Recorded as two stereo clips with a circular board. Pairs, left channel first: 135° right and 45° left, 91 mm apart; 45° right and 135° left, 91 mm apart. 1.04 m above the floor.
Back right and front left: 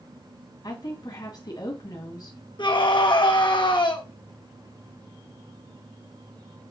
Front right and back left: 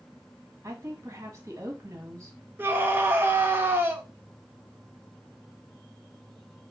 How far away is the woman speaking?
About 1.7 m.